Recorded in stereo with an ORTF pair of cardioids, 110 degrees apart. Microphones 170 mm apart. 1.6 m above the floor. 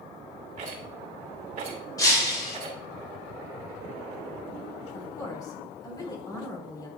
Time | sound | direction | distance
0.6 | a rattle | 45° right | 2.5 m
2.0 | breaking glass | 20° left | 4 m
4.9 | a woman speaking | 25° left | 4 m